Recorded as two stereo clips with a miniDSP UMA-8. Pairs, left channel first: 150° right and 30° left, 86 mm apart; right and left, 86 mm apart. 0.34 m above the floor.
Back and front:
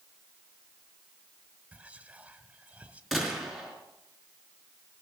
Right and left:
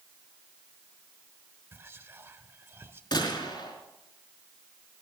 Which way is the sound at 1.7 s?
85° left.